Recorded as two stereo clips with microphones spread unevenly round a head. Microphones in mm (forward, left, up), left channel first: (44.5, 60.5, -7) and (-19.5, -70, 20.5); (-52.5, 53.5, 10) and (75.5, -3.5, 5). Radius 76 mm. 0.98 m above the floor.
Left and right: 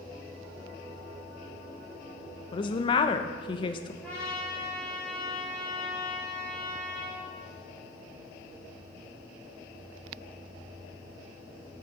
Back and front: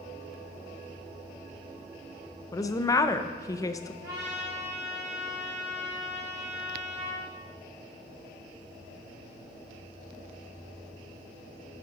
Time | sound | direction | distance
2.5 | a woman speaking | 95° left | 0.6 m
4.0 | a trumpet | 20° right | 4 m